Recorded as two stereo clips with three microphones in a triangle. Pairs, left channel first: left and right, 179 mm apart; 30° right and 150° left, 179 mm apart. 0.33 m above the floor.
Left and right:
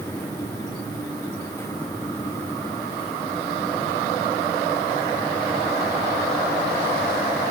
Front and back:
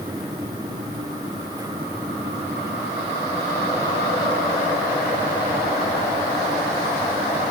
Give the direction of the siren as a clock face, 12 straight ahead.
No siren in this recording.